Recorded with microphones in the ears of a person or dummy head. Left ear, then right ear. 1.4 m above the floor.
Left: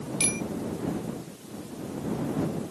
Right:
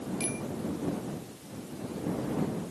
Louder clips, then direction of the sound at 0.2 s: Left 8 dB; 35° left (ahead or behind).